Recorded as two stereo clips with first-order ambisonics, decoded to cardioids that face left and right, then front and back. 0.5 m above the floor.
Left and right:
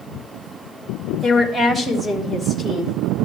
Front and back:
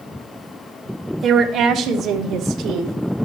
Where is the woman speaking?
175° left, 0.9 m; by 2.9 s 160° right, 1.5 m.